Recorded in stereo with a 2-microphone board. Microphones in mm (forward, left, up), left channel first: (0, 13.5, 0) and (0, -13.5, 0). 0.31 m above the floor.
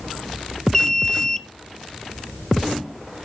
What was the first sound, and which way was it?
An alarm, 15° left (ahead or behind).